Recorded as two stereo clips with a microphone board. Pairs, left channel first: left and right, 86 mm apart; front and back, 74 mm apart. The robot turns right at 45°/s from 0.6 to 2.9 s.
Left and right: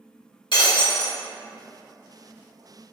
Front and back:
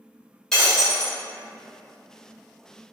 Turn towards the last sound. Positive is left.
turn(degrees=-175)